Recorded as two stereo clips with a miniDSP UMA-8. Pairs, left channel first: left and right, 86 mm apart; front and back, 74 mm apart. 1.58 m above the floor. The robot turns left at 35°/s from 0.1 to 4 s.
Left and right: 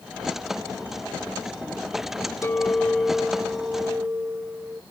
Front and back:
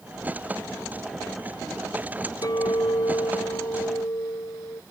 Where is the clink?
30° left; by 4.8 s 25° right.